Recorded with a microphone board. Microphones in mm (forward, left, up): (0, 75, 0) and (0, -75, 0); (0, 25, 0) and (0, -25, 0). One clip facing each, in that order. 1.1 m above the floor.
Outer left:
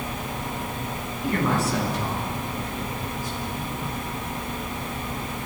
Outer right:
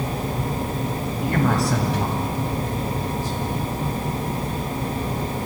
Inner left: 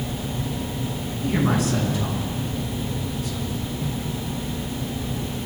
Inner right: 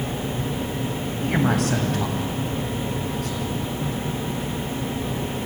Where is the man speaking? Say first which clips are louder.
Outer right 2 dB, even; 70° right (ahead or behind), 8.5 m; by 3.7 s 65° right (ahead or behind), 12 m.